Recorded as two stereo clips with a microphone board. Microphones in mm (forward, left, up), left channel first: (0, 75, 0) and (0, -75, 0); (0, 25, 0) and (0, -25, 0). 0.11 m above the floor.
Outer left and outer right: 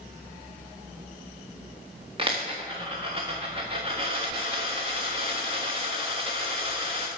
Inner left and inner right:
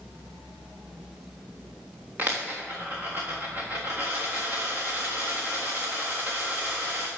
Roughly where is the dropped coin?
Right.